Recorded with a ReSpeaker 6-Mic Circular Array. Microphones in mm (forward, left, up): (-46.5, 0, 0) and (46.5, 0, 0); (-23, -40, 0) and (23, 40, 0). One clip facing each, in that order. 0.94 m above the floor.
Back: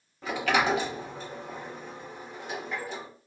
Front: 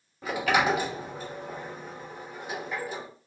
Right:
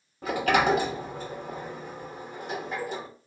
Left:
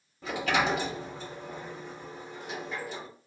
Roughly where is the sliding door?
Right.